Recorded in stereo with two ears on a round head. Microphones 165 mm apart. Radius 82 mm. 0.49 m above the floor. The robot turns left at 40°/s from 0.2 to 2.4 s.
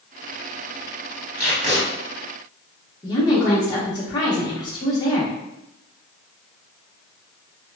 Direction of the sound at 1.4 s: 15° right (ahead or behind).